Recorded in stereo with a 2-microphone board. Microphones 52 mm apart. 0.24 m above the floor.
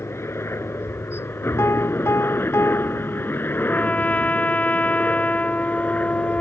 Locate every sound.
0.0 s a helicopter: 55° left (ahead or behind); by 6.4 s 30° left (ahead or behind)
1.6 s a piano: 55° left (ahead or behind)
3.6 s a trumpet: 30° left (ahead or behind)